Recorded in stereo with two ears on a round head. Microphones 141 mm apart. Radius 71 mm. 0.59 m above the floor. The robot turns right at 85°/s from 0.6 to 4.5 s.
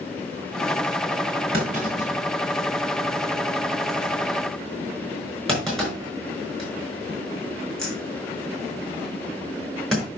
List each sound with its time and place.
1.5 s a clunk: 70° right (ahead or behind), 5 m; by 10.1 s centre (ahead or behind), 5 m